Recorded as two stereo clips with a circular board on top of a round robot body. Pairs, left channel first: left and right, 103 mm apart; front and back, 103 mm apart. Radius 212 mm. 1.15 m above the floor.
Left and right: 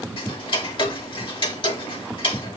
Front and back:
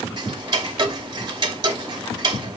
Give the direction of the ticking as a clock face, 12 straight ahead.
8 o'clock.